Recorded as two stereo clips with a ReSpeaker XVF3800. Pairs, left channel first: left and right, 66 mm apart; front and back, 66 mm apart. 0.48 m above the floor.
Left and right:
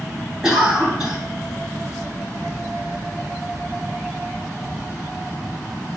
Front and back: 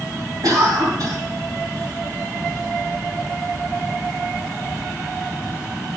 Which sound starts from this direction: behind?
A cough, at 0.4 s.